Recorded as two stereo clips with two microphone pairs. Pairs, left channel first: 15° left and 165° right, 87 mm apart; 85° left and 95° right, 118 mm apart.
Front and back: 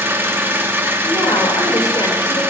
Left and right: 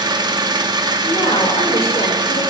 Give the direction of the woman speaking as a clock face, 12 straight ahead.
10 o'clock.